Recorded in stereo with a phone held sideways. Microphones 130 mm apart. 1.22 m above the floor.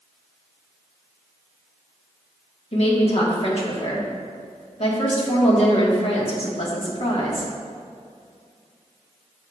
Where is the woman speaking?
50° left (ahead or behind), 1.4 m.